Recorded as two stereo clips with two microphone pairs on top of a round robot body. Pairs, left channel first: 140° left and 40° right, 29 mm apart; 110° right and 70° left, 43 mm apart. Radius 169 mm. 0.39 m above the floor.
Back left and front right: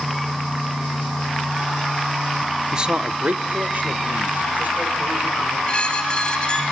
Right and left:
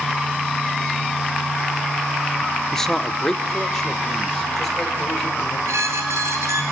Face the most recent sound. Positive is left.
turn(degrees=85)